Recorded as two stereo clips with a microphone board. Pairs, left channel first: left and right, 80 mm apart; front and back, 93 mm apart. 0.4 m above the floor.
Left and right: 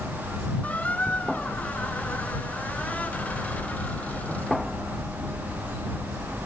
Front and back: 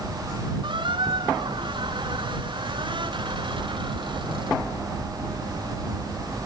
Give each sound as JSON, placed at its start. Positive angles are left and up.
{"t": 0.6, "sound": "a squeak", "azimuth_deg": 160}